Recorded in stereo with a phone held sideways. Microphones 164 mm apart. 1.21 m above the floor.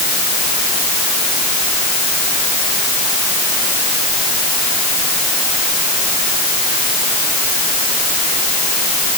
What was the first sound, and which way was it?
Only background noise.